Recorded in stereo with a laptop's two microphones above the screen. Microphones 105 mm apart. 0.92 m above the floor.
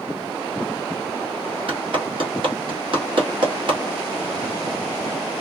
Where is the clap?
50° right (ahead or behind), 1.4 m.